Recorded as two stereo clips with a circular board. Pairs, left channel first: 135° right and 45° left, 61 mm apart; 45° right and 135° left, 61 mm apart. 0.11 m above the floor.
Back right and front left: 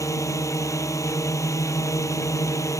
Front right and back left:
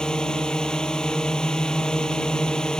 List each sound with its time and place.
0.0 s a drone: 120° right